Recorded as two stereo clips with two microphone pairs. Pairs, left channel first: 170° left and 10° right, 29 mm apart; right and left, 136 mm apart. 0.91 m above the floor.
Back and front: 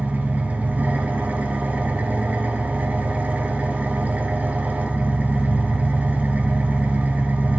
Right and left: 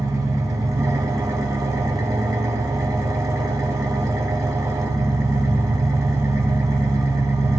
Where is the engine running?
20° left, 0.9 m.